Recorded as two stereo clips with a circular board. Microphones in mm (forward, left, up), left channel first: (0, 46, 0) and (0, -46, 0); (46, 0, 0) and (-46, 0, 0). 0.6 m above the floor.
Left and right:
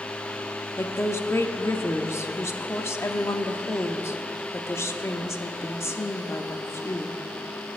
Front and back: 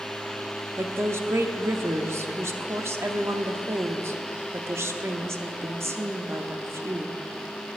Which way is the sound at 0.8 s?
135° left.